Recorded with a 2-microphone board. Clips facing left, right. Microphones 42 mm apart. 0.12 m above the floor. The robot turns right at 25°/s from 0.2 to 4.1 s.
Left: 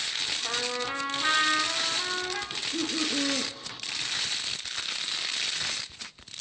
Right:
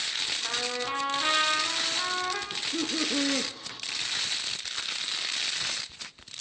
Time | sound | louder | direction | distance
0.4 | a trumpet | left 1 dB | 155° right | 6 m
2.5 | laughter | even | 65° right (ahead or behind) | 3.5 m